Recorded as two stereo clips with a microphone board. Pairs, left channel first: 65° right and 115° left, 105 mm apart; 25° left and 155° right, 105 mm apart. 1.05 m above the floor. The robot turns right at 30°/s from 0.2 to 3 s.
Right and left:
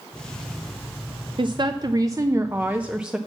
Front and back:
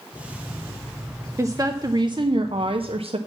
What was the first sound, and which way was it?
A woman speaking, 145° left.